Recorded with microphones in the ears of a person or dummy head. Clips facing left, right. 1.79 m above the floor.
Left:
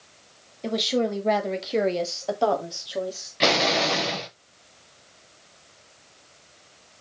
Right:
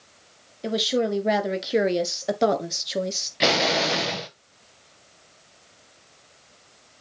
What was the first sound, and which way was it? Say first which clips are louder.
A woman speaking: right 1 dB; 5° right (ahead or behind).